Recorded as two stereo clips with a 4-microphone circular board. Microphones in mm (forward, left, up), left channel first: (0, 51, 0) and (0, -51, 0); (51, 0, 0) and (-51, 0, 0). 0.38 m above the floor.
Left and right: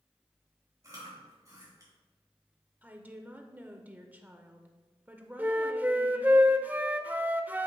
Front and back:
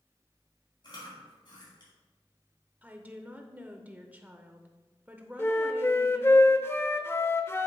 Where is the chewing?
35° right, 3.5 m.